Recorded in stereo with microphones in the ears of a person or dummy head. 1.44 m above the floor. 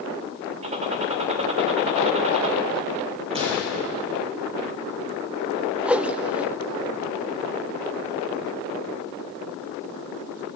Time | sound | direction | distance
0.6 | a gunshot | 30° right (ahead or behind) | 2 m
3.3 | a gunshot | 40° right (ahead or behind) | 8.5 m
5.8 | a whoosh | 15° right (ahead or behind) | 0.5 m